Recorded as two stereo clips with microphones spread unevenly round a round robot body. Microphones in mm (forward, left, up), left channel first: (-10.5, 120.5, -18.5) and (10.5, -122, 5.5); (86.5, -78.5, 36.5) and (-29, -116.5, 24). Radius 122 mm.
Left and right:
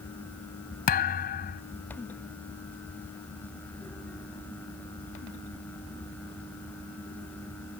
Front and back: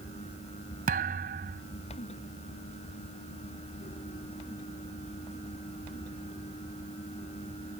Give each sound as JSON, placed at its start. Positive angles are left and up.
{"t": 0.9, "sound": "a thud", "azimuth_deg": 150}